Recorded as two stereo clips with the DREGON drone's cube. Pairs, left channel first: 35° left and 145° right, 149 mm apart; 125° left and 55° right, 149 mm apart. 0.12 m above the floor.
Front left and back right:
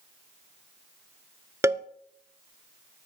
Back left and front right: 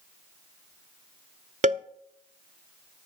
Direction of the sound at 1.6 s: 75° right.